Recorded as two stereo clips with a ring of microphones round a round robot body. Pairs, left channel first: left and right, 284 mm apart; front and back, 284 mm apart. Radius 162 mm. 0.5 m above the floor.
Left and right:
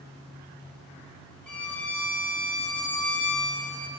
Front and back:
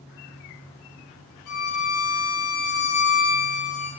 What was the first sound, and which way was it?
A violin, 5° left.